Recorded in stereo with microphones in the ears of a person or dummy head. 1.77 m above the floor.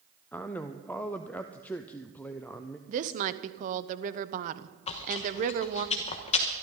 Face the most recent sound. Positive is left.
turn(degrees=30)  # may be behind; listen again after turning